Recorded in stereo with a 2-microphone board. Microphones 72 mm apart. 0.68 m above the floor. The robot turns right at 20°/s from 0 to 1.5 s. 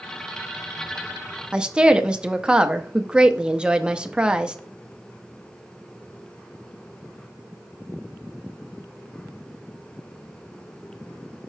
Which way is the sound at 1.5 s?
15° right (ahead or behind).